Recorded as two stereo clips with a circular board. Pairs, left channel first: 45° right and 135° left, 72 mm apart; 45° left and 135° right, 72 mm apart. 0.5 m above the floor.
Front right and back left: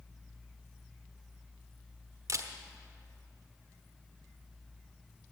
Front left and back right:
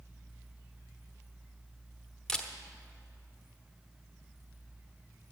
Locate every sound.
2.3 s a camera shutter: 125° left, 1.0 m